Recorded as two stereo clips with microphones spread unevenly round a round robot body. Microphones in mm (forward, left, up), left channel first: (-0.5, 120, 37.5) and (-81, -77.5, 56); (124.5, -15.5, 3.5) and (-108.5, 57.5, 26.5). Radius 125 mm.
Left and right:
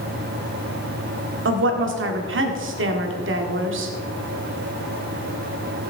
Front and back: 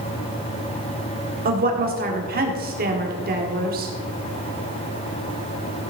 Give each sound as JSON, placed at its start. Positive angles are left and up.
{"t": 1.4, "sound": "a woman speaking", "azimuth_deg": -140, "distance_m": 1.8}